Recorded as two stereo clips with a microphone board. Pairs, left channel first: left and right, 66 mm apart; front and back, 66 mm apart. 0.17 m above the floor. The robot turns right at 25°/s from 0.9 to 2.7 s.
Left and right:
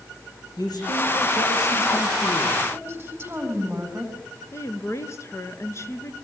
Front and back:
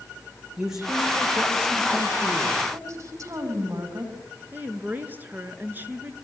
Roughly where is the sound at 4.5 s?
Behind left.